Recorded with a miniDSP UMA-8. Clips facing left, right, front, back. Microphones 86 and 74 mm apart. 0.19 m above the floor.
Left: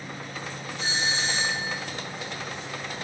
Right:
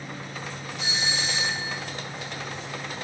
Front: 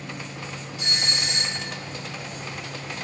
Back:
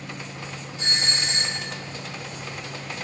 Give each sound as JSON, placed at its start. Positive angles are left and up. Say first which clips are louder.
{"t": 0.8, "sound": "a doorbell", "louder": "left 2 dB, back 2 dB", "azimuth_deg": 135, "distance_m": 2.5}